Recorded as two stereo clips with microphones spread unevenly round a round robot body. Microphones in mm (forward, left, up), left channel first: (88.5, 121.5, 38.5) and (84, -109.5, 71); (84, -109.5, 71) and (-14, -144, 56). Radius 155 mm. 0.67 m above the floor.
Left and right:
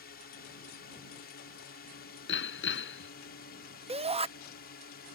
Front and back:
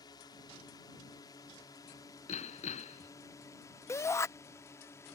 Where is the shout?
35° right.